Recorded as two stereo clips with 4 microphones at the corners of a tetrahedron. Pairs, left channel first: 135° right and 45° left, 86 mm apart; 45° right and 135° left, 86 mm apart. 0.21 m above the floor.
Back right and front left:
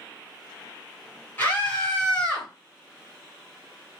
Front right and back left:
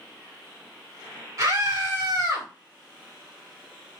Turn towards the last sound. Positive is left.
turn(degrees=150)